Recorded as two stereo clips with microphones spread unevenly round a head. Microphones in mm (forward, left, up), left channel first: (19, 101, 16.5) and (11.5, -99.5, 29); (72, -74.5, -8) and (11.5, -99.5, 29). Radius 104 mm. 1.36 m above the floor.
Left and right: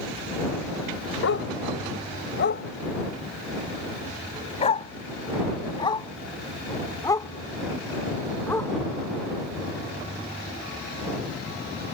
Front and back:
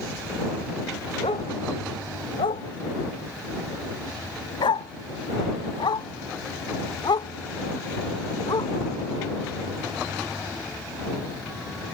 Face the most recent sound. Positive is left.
turn(degrees=10)